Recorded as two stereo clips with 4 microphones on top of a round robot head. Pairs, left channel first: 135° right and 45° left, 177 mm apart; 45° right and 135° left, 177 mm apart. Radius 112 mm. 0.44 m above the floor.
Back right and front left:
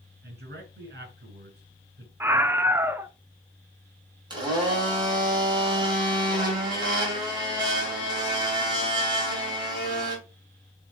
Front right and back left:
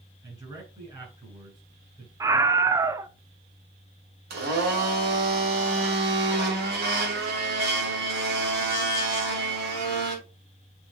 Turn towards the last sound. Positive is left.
turn(degrees=110)